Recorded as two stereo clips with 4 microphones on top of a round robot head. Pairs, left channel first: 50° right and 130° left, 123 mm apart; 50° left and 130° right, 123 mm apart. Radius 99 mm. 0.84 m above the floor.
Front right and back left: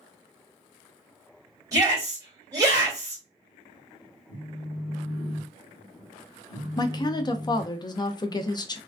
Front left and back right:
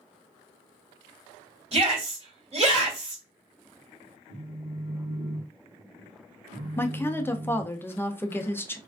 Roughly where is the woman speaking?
Ahead.